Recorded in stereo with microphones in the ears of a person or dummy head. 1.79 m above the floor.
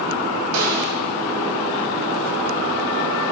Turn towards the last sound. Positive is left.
turn(degrees=-65)  # may be behind; listen again after turning